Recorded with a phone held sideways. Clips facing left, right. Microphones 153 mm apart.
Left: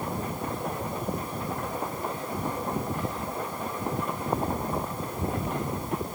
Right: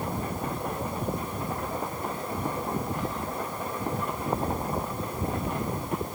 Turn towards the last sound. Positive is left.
No sound to turn to.